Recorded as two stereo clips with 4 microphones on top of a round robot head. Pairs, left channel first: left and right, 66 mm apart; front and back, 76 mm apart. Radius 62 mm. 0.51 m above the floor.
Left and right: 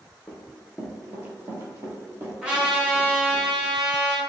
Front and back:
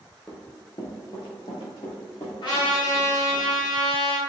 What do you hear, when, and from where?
0.3 s running footsteps: 45° left, 0.5 m; by 3.4 s 55° right, 2 m
2.4 s a trumpet: 15° right, 1.2 m